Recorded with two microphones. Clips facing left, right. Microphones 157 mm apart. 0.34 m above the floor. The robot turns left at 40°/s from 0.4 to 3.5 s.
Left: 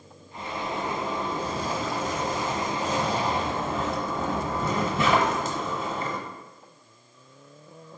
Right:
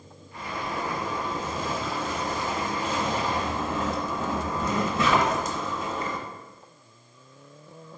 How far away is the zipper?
About 0.7 m.